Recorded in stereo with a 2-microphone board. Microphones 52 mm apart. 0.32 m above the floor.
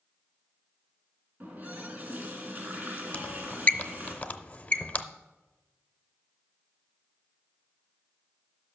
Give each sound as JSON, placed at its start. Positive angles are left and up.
{"t": 1.4, "sound": "a running tap", "side_deg": -40, "distance_m": 2.5}
{"t": 3.1, "sound": "a squeak", "side_deg": 30, "distance_m": 0.6}